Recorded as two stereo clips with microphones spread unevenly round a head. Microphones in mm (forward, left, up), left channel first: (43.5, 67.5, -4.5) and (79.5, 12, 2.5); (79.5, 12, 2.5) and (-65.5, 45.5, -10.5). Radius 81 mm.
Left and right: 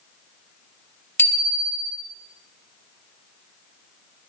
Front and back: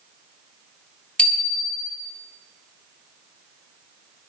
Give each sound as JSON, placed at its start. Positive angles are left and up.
{"t": 1.2, "sound": "a bicycle bell", "azimuth_deg": 70, "distance_m": 3.5}